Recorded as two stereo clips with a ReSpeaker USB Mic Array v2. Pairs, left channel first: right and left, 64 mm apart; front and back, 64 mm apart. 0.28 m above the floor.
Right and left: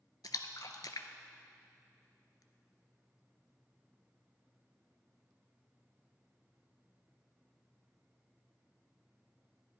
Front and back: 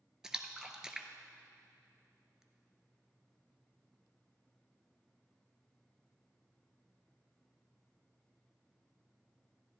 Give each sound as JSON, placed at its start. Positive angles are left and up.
{"t": 0.2, "sound": "a splash", "azimuth_deg": -100, "distance_m": 0.7}